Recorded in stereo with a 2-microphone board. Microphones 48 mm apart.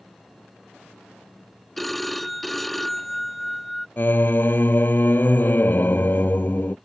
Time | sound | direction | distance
1.8 | a phone ringing | 5° left (ahead or behind) | ?
4.0 | singing | 45° left (ahead or behind) | ?